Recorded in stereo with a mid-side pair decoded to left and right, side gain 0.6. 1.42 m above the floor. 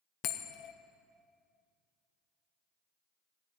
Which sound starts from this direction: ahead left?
A bell, at 0.2 s.